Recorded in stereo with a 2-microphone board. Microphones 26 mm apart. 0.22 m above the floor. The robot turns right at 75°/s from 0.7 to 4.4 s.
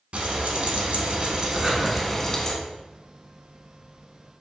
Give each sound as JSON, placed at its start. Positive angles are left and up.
{"t": 0.1, "sound": "frying", "azimuth_deg": -95, "distance_m": 0.9}
{"t": 1.5, "sound": "breathing", "side_deg": -30, "distance_m": 1.4}